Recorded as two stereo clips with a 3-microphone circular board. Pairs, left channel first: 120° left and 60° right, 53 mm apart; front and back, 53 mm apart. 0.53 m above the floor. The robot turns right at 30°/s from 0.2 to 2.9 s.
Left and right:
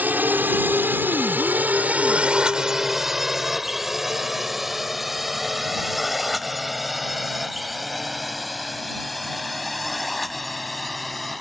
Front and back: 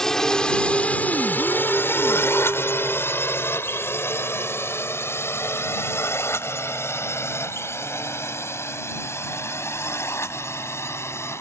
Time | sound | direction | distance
0.0 | a drone | 75° right | ?